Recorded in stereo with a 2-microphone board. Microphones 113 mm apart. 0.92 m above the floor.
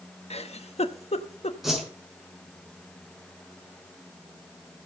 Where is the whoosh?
5° right (ahead or behind), 5 m.